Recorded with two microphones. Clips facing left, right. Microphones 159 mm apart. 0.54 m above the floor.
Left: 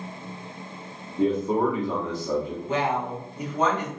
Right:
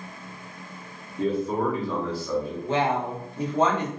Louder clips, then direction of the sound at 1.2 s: Left 3 dB; 20° left (ahead or behind).